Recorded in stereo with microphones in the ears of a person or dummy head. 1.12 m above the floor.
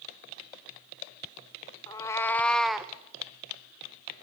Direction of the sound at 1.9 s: 20° left (ahead or behind).